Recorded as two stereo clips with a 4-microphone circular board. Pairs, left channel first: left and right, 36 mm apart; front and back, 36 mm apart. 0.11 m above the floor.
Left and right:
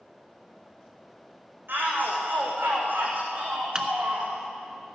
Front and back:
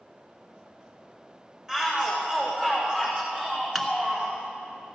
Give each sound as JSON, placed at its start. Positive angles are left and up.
{"t": 1.7, "sound": "a shout", "azimuth_deg": -110, "distance_m": 6.5}
{"t": 3.8, "sound": "a microwave", "azimuth_deg": -75, "distance_m": 1.0}